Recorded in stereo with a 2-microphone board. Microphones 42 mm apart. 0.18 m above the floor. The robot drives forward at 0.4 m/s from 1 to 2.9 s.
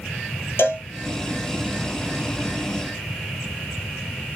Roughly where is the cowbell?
Left.